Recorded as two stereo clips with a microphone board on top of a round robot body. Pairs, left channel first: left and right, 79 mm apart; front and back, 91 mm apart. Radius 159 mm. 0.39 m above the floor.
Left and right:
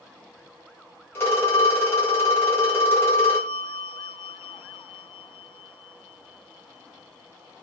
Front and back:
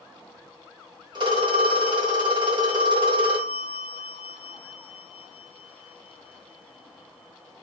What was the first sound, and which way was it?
A phone ringing, 150° left.